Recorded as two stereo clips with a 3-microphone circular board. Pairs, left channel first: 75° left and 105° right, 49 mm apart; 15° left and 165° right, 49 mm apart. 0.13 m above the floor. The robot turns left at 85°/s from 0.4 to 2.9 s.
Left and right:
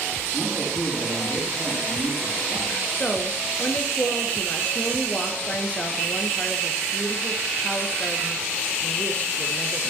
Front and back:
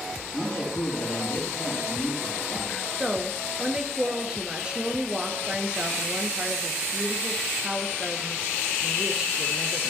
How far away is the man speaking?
About 6 m.